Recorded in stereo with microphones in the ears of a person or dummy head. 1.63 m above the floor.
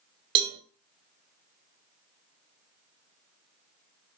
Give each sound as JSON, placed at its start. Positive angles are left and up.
{"t": 0.3, "sound": "a cowbell", "side_deg": -35, "distance_m": 0.7}